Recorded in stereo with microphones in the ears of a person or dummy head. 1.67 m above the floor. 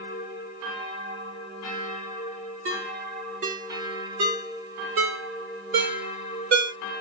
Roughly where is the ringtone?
Right.